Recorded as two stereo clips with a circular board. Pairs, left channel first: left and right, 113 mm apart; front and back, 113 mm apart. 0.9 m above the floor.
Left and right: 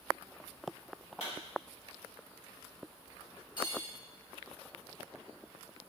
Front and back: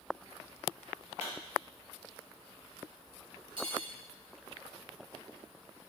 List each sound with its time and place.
1.2 s a pop: 105° left, 2.0 m
3.6 s cutlery clinking: 140° left, 0.9 m